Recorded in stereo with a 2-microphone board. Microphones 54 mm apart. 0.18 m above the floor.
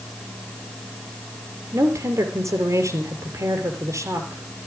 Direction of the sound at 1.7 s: 70° right (ahead or behind).